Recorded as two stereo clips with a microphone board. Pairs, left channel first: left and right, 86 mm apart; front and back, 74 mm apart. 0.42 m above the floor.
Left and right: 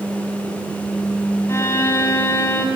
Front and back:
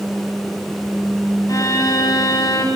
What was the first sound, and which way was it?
A violin, 35° left.